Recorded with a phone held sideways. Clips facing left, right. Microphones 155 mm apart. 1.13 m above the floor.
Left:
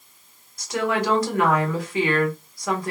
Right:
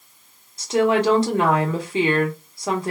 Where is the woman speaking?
25° right (ahead or behind), 1.1 m.